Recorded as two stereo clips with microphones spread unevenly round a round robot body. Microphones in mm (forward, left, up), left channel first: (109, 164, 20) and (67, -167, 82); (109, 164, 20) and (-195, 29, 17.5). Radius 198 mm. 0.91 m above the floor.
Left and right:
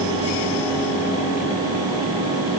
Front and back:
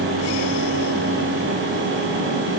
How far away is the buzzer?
No buzzer in this recording.